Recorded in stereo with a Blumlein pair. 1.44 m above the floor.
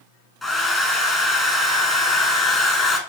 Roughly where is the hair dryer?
Ahead.